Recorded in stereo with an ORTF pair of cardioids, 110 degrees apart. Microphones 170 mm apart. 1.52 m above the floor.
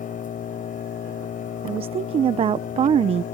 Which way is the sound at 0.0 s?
50° left.